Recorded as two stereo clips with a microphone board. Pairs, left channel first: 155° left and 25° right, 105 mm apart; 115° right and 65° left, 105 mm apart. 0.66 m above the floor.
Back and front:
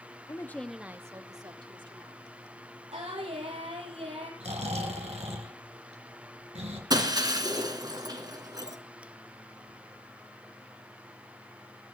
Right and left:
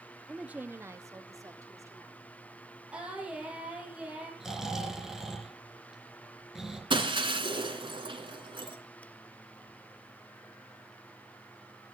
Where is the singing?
10° right, 5.5 m.